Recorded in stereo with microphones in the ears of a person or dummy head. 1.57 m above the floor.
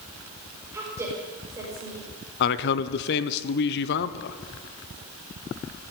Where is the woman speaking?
15° right (ahead or behind), 5.5 m.